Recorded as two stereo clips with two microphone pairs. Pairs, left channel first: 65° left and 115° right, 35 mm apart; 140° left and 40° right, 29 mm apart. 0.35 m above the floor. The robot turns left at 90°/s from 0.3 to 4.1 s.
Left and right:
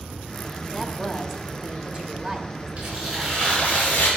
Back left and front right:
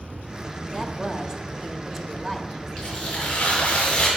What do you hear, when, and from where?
0.7 s a woman speaking: straight ahead, 1.0 m; by 3.0 s 150° left, 1.0 m
2.8 s tearing paper: 160° right, 5 m; by 4.1 s 80° left, 5 m